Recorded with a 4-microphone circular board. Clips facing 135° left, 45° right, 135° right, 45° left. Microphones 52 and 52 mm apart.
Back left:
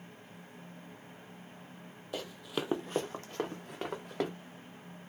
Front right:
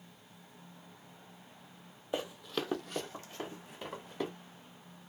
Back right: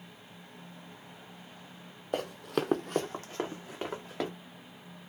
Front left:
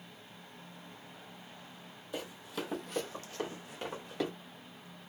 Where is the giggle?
No giggle in this recording.